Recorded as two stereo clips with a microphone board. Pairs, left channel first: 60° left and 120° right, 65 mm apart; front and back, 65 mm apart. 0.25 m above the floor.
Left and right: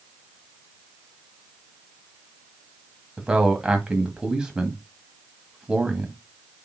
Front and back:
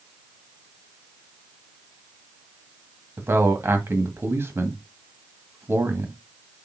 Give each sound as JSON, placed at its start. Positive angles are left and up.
{"t": 3.2, "sound": "a man speaking", "azimuth_deg": 165, "distance_m": 1.4}